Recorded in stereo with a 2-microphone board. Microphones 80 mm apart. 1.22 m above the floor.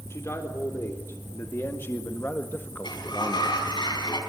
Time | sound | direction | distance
0.1 | a man speaking | 35° left (ahead or behind) | 3.5 m
2.8 | a sliding door | 70° left (ahead or behind) | 6 m